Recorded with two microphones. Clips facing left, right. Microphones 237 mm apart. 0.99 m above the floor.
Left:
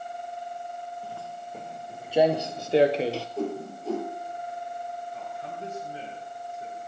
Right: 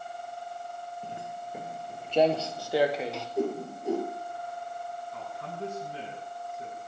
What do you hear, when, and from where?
1.0 s footsteps: 20° right (ahead or behind), 1.0 m; by 3.3 s 35° left (ahead or behind), 1.2 m
3.4 s a whoosh: 15° right (ahead or behind), 6.5 m
5.1 s a man speaking: 85° right, 8 m